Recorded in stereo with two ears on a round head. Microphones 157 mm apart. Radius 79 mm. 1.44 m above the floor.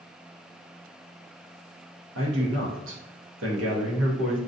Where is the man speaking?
85° right, 0.9 m.